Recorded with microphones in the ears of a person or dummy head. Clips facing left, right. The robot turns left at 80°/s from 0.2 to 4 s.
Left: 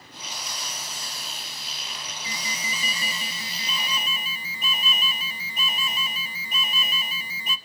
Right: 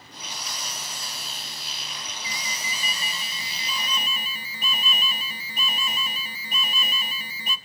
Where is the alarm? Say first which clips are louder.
Left 2 dB; 140° left, 1.5 m; by 7.6 s straight ahead, 1.5 m.